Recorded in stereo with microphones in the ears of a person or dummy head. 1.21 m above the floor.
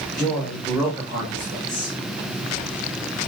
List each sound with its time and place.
0.2 s a man speaking: 10° left (ahead or behind), 1.6 m; by 1.9 s 45° right (ahead or behind), 2.5 m